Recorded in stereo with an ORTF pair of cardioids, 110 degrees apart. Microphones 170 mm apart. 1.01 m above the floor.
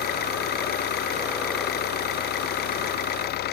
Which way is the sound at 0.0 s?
70° left.